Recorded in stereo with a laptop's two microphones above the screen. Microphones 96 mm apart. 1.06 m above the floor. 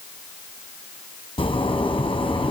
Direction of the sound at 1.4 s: 80° left.